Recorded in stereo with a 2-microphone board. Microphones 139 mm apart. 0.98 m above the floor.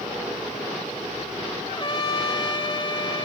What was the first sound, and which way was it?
A trumpet, 35° left (ahead or behind).